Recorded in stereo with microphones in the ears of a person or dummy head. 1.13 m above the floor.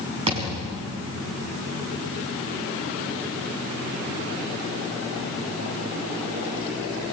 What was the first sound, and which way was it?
A thud, 25° right (ahead or behind).